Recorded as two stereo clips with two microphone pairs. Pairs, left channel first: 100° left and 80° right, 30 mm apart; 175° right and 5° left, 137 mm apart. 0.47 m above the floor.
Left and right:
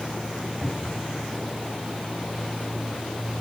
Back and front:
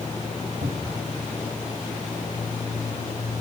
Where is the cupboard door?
15° left, 3.5 m.